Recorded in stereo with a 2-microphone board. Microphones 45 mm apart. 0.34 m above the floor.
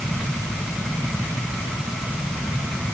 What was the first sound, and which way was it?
Only background noise.